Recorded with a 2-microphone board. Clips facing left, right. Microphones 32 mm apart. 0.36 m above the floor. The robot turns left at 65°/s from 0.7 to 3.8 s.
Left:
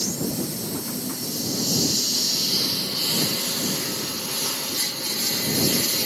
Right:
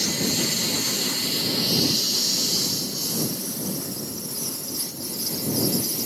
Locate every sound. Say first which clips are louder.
0.0 s a lawn mower: right 3 dB; 80° right; by 6.1 s 85° left